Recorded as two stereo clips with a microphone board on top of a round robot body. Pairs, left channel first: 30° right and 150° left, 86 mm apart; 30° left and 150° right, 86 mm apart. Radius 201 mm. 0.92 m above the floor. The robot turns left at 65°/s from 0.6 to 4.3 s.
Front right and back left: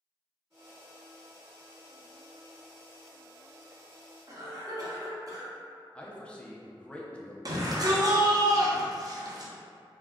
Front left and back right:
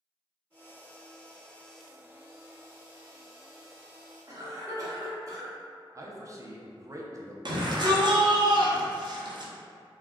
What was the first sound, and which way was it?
A cough, straight behind.